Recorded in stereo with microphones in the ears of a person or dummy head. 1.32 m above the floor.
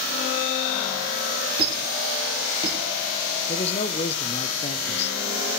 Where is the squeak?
25° right (ahead or behind), 3 m.